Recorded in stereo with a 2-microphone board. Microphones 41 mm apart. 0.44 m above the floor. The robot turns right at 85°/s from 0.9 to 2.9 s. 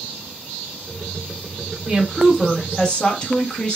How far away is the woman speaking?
About 1.0 m.